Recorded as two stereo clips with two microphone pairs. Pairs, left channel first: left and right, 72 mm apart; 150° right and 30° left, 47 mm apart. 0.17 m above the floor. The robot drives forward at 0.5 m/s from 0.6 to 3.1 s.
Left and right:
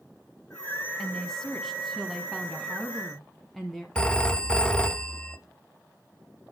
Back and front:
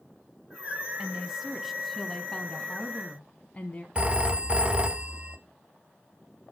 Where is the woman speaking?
15° left, 1.1 m; by 3.9 s 175° left, 1.3 m.